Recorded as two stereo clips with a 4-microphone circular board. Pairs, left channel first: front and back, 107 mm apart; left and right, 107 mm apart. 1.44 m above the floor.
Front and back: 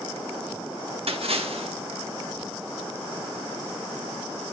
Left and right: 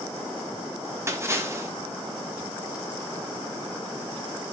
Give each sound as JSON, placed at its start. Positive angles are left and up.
{"t": 1.1, "sound": "a splash", "azimuth_deg": -155, "distance_m": 1.7}